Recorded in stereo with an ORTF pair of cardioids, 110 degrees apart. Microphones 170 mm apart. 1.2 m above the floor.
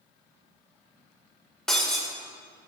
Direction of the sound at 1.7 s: 5° left.